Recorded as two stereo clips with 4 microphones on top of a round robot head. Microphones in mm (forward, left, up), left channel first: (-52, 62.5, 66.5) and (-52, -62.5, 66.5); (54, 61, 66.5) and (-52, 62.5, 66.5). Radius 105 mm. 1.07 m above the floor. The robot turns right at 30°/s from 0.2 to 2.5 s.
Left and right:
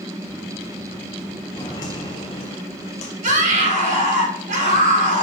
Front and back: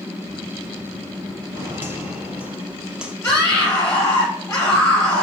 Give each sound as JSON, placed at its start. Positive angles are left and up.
{"t": 1.5, "sound": "footsteps", "azimuth_deg": 135, "distance_m": 1.2}
{"t": 3.2, "sound": "a scream", "azimuth_deg": -70, "distance_m": 4.0}